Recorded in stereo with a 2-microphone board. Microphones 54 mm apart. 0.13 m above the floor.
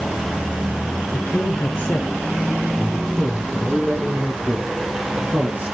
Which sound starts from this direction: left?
A man speaking, at 1.1 s.